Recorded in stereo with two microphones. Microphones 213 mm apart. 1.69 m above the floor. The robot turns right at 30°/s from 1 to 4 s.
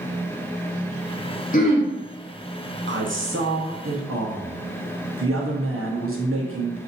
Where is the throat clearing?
40° left (ahead or behind), 1.0 m; by 1.9 s 30° left (ahead or behind), 1.0 m.